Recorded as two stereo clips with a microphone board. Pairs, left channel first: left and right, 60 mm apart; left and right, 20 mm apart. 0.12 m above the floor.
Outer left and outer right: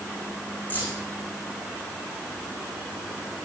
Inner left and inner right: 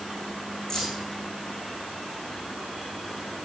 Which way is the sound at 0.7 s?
25° left (ahead or behind).